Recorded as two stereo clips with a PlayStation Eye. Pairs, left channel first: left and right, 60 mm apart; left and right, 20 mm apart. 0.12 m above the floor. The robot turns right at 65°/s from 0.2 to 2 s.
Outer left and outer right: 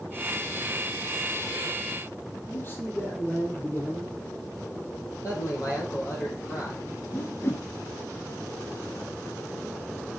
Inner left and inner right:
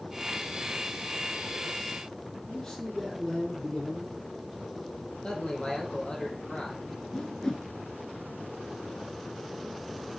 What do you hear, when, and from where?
2.5 s a man speaking: 35° left (ahead or behind), 3 m
5.2 s a man speaking: 65° left (ahead or behind), 4 m
7.1 s a whoosh: 40° left (ahead or behind), 1.0 m